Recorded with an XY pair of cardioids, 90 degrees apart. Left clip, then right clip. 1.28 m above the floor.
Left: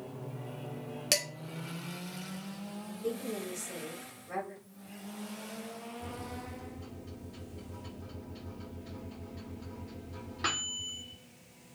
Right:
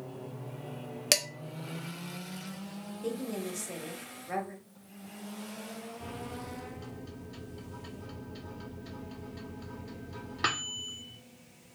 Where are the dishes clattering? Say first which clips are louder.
Right 3 dB; 40° right, 0.7 m.